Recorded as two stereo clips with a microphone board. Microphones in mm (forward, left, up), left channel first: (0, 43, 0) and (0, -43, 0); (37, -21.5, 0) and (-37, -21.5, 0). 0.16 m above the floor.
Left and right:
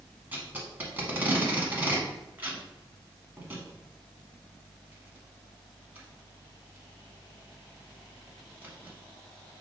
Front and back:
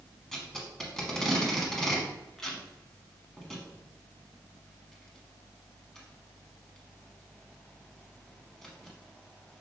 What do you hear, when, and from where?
0.3 s tape being pulled: 75° right, 0.9 m